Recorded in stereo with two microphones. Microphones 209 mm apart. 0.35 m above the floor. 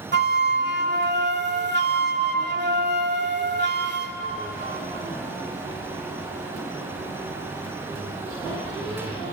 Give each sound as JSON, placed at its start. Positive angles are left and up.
{"t": 0.1, "sound": "a flute", "side_deg": -50, "distance_m": 1.4}